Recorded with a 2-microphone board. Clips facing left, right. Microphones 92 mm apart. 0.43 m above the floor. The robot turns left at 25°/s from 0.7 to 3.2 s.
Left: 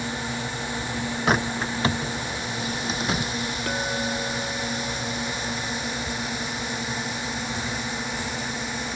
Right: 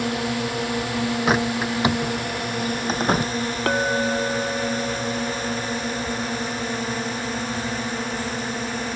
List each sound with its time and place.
0.0 s a drone: 75° right (ahead or behind); by 9.0 s 40° right (ahead or behind)
1.3 s a bird: centre (ahead or behind); by 3.3 s 50° right (ahead or behind)
3.7 s a clink: 75° right (ahead or behind)